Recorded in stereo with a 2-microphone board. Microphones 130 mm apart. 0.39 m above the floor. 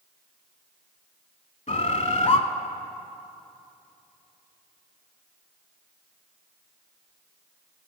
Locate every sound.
1.7 s a bird: 60° left (ahead or behind), 0.6 m